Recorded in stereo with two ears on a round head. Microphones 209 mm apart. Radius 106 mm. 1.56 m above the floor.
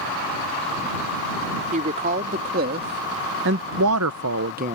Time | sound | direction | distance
1.7 | a woman speaking | 35° right (ahead or behind) | ?